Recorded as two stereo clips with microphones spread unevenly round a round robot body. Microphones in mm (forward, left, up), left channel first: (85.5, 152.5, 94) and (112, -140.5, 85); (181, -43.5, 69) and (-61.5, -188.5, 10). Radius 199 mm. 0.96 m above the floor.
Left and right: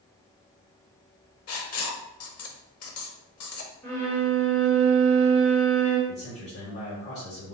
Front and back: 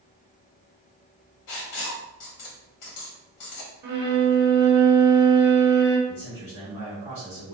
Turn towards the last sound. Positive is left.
turn(degrees=150)